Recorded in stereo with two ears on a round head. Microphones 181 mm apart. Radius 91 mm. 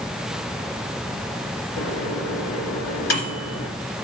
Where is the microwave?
70° left (ahead or behind), 2.0 m.